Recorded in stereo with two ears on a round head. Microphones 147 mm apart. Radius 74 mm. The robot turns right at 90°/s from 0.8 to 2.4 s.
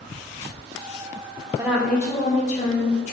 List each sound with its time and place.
1.6 s a woman speaking: 20° right, 1.1 m; by 3.1 s 55° left, 1.1 m